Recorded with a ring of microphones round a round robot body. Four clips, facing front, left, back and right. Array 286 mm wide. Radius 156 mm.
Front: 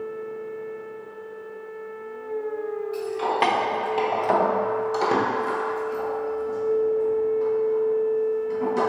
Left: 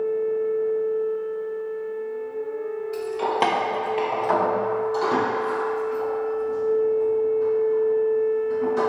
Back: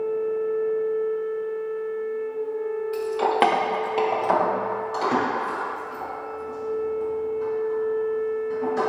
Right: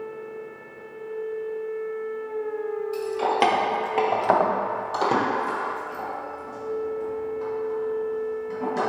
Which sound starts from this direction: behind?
Keys jangling, at 2.9 s.